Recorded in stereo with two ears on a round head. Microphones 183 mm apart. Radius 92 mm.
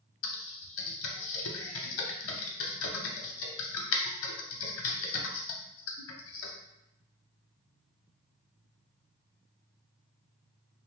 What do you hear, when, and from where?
0.2 s typing on a keyboard: 70° left (ahead or behind), 0.6 m